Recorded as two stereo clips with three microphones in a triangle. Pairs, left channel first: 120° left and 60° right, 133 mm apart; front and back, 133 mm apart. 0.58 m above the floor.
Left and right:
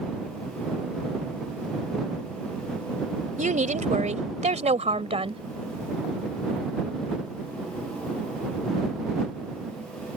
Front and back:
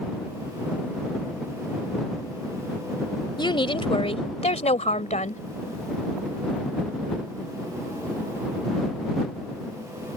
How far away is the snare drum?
No snare drum in this recording.